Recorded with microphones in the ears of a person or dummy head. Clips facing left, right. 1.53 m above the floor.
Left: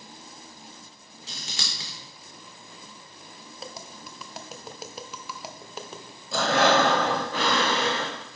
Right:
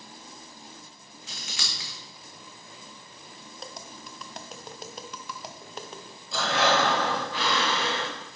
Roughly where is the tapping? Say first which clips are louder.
Left 2 dB; centre.